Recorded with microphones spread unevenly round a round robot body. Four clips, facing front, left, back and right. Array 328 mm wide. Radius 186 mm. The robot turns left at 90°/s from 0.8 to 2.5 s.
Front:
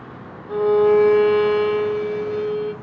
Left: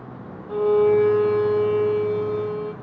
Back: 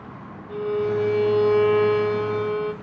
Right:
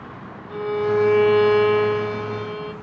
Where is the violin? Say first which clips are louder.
Left 5 dB, front 9 dB; 10° right, 0.6 m; by 2.7 s 165° right, 0.6 m.